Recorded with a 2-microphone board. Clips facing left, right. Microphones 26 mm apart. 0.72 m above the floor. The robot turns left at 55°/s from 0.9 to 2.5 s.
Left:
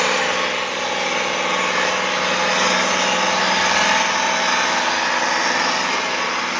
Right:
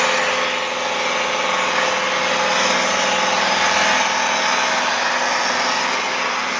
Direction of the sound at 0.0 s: 95° right.